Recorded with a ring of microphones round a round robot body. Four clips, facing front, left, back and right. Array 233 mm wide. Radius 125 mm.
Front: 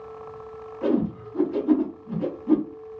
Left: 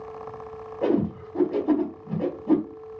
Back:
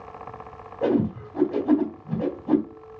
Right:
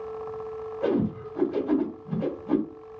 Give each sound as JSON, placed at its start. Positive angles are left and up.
{"t": 0.8, "sound": "a whoosh", "azimuth_deg": 140, "distance_m": 2.0}